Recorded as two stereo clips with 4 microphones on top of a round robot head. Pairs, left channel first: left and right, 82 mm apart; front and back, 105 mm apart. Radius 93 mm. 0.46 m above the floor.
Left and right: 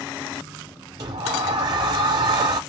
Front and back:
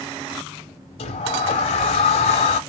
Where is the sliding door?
35° right, 0.7 m.